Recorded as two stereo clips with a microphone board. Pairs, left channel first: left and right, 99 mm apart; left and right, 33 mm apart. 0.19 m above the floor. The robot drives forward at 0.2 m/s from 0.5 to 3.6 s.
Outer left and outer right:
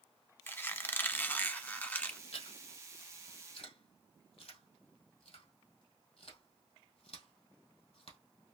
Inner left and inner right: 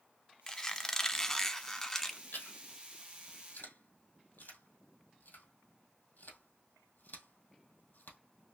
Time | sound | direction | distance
0.5 | a squeak | 20° left (ahead or behind) | 0.7 m
2.3 | chewing | 80° left | 2 m